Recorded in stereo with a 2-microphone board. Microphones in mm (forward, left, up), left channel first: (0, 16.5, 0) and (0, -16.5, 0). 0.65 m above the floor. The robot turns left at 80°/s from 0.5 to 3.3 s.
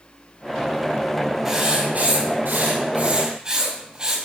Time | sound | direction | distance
1.4 | writing | 5° right | 3 m